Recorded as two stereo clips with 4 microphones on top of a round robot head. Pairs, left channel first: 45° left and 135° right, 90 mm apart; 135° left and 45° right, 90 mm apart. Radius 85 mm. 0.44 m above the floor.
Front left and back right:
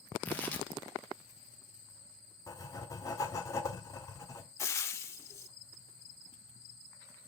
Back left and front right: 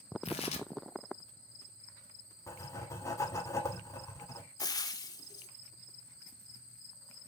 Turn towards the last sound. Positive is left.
turn(degrees=100)